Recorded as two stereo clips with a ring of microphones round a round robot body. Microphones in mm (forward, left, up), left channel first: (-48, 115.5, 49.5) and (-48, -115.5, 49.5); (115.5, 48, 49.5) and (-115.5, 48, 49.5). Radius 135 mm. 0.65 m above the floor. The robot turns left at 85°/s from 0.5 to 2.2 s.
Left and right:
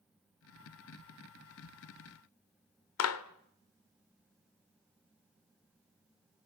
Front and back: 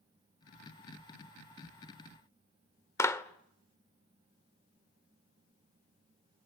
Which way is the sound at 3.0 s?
80° left.